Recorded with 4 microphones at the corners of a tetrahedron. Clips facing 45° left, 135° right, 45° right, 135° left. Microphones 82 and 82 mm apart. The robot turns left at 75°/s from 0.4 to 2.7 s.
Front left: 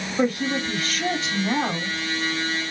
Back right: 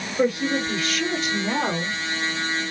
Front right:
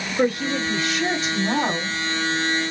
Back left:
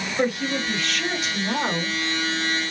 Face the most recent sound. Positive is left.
turn(degrees=-115)